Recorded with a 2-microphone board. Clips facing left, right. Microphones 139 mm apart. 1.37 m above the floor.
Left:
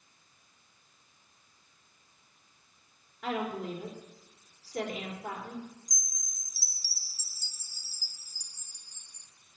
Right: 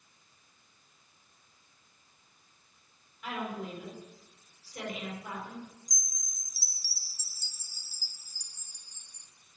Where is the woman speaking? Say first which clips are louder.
Left 4 dB; 85° left, 3.5 m.